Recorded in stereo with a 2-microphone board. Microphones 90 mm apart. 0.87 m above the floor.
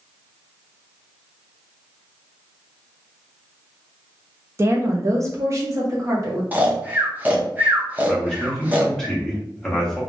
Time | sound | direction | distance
4.6 | a woman speaking | 30° right (ahead or behind) | 0.7 m
6.5 | snoring | 20° right (ahead or behind) | 0.8 m
8.1 | a man speaking | 5° left (ahead or behind) | 1.4 m